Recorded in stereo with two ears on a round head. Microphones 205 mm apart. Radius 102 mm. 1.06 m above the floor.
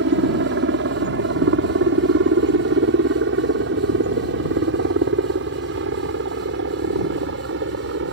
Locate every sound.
0.0 s a helicopter: 55° right (ahead or behind)